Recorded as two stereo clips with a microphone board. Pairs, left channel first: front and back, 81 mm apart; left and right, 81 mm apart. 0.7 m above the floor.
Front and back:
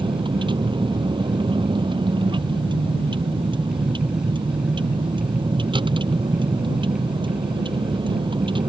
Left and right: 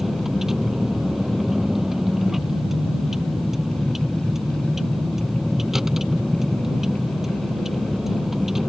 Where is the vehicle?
175° right.